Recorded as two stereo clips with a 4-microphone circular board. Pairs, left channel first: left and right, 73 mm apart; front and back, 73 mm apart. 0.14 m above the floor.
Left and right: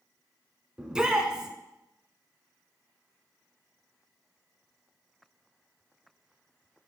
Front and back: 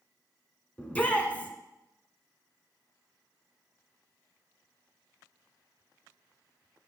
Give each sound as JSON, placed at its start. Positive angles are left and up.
{"t": 0.8, "sound": "a shout", "azimuth_deg": -30, "distance_m": 1.1}